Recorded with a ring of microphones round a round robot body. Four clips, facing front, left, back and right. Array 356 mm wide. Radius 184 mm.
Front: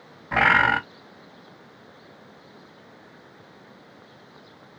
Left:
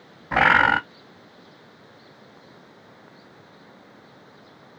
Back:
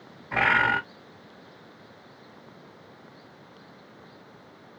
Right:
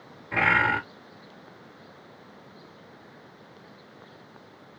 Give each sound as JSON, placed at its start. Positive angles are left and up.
{"t": 0.3, "sound": "a bird", "azimuth_deg": 65, "distance_m": 0.6}